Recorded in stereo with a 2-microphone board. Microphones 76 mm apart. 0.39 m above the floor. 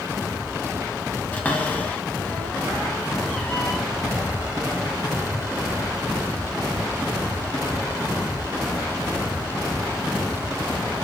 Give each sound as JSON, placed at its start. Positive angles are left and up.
{"t": 1.3, "sound": "a cupboard door", "side_deg": 20, "distance_m": 2.5}